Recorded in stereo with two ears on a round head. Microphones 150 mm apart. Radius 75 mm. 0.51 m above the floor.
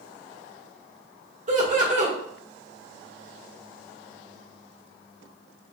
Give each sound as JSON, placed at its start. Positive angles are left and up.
{"t": 1.5, "sound": "laughter", "side_deg": -50, "distance_m": 1.2}